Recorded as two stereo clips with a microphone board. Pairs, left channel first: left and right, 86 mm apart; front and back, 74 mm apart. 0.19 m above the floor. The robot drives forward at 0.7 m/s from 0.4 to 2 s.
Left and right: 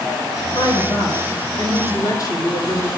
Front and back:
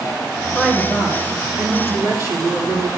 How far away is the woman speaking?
About 2 m.